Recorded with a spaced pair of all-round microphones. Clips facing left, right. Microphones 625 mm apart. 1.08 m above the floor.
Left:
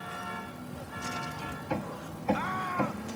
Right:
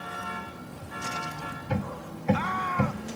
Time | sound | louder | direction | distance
1.7 | hammering | right 3 dB | 45° right (ahead or behind) | ?